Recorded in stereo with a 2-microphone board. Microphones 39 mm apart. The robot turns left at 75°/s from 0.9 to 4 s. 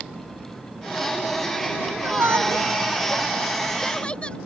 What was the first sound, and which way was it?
A shout, 60° right (ahead or behind).